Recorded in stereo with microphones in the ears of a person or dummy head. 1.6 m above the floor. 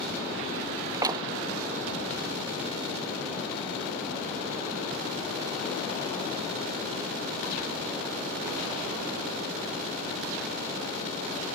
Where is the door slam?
20° right (ahead or behind).